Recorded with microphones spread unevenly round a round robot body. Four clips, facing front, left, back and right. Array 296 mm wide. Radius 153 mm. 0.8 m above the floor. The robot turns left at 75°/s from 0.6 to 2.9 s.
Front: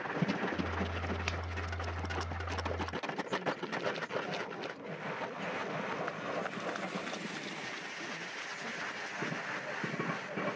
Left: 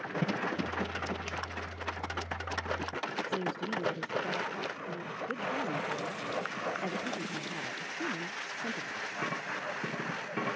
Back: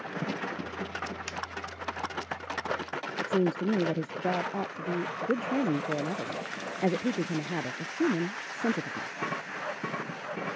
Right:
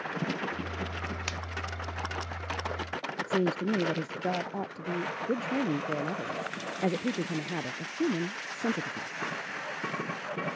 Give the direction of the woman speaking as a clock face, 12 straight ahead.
5 o'clock.